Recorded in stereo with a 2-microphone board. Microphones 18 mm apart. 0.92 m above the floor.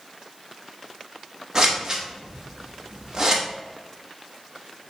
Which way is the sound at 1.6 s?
35° right (ahead or behind).